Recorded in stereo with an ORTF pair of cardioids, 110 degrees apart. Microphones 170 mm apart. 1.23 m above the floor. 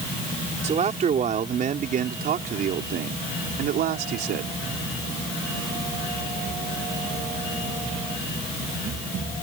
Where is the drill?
I don't hear a drill.